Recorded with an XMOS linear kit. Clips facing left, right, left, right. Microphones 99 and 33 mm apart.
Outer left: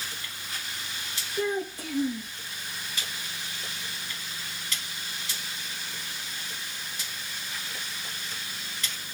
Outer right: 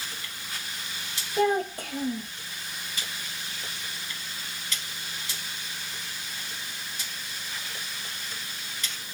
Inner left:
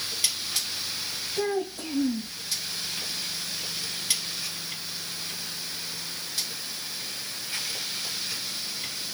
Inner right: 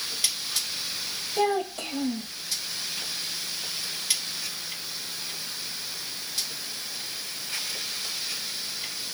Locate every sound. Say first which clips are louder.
1.4 s a child speaking: outer right 5 dB, inner right 3 dB; 65° right (ahead or behind), 1.8 m